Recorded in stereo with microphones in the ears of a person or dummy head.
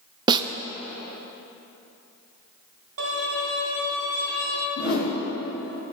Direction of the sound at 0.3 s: 20° right (ahead or behind).